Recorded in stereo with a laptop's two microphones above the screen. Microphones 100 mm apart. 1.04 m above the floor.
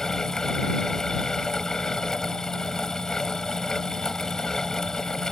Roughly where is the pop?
No pop in this recording.